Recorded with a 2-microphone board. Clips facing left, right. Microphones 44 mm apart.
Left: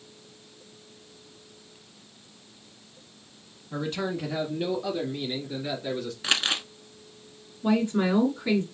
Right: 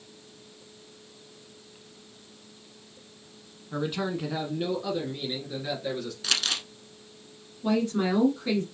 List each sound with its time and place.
3.7 s a man speaking: 10° right (ahead or behind), 1.2 m; by 6.1 s centre (ahead or behind), 2 m
6.2 s crumpling: 25° left (ahead or behind), 0.6 m
7.6 s a woman speaking: 15° left (ahead or behind), 1.0 m